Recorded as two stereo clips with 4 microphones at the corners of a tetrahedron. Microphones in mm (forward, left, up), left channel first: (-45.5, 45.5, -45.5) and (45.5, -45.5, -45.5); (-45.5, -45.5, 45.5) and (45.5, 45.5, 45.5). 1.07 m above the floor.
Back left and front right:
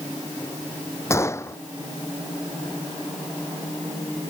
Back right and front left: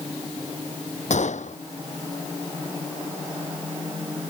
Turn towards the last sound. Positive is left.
turn(degrees=-155)